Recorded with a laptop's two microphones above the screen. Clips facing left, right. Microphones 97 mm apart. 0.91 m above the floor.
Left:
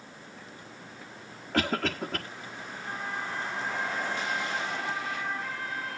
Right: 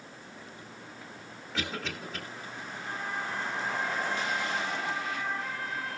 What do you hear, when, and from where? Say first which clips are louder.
1.5 s a cough: left 8 dB; 75° left (ahead or behind), 1.5 m